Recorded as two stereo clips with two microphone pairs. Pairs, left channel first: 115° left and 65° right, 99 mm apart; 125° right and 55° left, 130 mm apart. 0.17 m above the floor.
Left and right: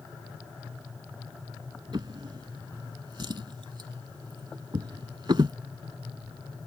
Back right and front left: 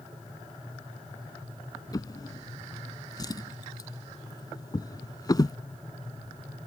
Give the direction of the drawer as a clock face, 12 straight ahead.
3 o'clock.